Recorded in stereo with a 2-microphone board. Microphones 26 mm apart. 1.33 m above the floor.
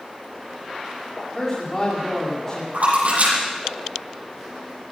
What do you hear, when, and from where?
1.4 s a man speaking: 20° left (ahead or behind), 3.5 m
2.7 s a splash: 80° right, 7 m